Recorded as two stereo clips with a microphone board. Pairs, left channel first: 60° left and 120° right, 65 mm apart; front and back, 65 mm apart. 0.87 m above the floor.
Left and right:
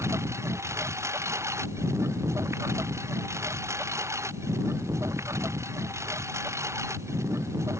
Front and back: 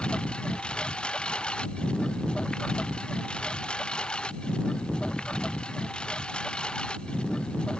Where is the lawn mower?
75° right.